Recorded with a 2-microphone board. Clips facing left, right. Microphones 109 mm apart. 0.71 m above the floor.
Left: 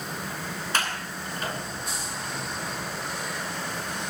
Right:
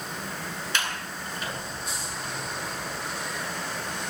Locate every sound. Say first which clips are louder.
0.7 s a sliding door: left 2 dB; 40° left (ahead or behind), 9 m